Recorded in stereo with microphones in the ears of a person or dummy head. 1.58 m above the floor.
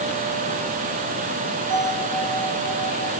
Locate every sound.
1.7 s a bell: 60° right (ahead or behind), 2.5 m